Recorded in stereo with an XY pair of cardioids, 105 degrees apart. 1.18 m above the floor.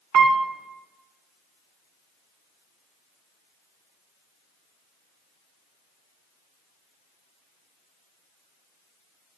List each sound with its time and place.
0.1 s a piano: 65° right, 0.7 m